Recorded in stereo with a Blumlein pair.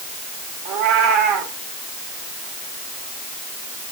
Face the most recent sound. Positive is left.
turn(degrees=-40)